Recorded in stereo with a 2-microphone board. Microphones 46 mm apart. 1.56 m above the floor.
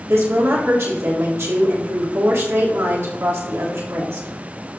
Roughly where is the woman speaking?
Right.